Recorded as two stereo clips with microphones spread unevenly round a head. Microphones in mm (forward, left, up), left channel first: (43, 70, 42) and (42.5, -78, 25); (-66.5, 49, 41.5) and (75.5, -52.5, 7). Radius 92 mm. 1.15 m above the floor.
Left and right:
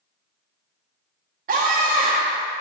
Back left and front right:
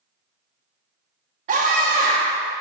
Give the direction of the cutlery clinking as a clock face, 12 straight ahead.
No cutlery clinking in this recording.